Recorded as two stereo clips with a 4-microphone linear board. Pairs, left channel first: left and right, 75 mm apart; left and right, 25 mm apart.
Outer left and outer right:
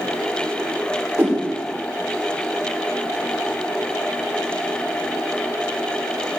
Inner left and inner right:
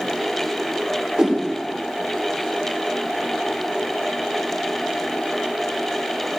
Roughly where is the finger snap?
I don't hear a finger snap.